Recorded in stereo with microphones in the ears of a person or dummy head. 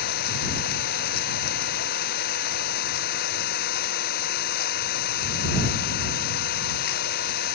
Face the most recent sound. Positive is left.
turn(degrees=50)  # may be behind; listen again after turning